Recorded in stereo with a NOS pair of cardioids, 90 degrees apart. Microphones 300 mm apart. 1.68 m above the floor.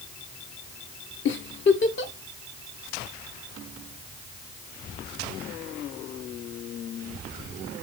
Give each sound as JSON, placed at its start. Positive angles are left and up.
{"t": 1.2, "sound": "a giggle", "azimuth_deg": 40, "distance_m": 1.2}